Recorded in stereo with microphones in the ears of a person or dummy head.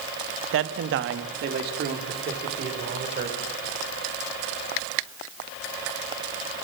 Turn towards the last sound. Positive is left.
turn(degrees=-55)  # may be behind; listen again after turning